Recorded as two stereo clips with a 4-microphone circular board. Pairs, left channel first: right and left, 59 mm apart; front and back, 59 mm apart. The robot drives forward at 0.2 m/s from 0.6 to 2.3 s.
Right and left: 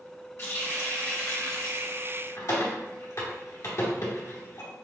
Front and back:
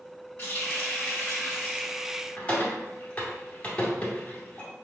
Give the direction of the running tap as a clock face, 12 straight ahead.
2 o'clock.